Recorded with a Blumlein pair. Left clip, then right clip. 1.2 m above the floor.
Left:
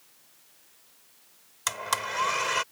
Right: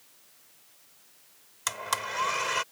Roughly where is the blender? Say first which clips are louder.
Left 2 dB; ahead.